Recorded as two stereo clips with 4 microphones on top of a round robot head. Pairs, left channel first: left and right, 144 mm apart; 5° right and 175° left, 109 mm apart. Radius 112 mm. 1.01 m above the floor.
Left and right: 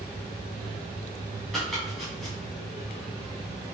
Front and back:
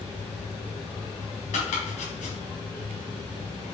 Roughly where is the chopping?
Ahead.